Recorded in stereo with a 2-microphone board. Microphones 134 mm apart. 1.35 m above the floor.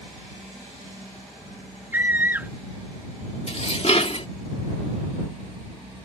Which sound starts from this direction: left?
Dishes clattering, at 3.5 s.